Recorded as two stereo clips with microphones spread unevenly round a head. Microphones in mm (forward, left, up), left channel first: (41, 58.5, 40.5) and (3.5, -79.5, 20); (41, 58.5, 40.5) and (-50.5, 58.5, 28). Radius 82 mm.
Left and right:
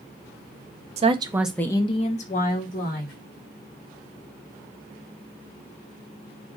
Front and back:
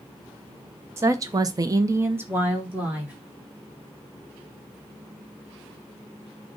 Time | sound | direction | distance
1.0 | a woman speaking | 130° right | 0.6 m